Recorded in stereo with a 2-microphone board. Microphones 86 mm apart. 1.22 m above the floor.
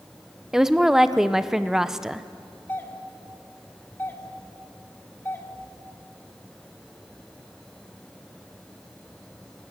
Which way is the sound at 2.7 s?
25° left (ahead or behind).